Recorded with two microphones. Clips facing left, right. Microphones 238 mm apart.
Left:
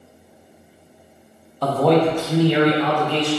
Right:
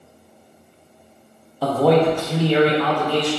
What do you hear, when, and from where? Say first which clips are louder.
1.6 s a man speaking: right 1 dB; 5° right (ahead or behind), 0.6 m; by 3.3 s 25° left (ahead or behind), 0.8 m